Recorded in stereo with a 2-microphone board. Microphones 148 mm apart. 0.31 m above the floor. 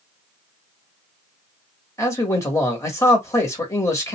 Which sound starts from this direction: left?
A man speaking, at 2.0 s.